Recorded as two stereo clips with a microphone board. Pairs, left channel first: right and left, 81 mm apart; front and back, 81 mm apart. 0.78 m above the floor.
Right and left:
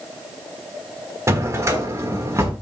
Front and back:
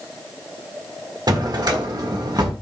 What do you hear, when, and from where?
1.3 s a drawer: 145° left, 1.3 m